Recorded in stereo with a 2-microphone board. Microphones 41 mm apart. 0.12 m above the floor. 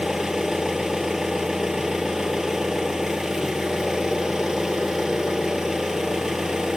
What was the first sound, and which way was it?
An engine running, 10° right (ahead or behind).